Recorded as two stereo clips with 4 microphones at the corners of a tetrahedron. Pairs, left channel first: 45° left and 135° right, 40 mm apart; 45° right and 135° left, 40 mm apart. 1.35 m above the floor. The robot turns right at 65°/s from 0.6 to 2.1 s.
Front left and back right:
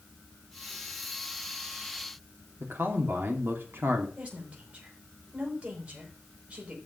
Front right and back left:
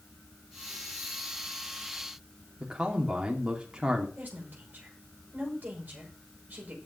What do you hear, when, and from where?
2.6 s a man speaking: 160° right, 2.5 m
4.2 s a woman speaking: 175° left, 6.5 m